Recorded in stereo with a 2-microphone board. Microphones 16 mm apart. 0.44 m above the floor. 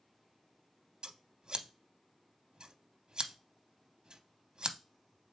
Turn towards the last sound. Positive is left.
turn(degrees=-60)  # may be behind; listen again after turning